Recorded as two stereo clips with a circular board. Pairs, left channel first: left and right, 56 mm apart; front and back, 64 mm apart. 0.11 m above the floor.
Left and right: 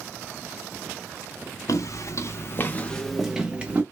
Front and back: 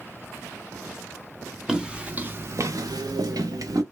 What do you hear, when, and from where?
1.7 s footsteps: 100° left, 0.9 m; by 3.8 s 155° right, 0.9 m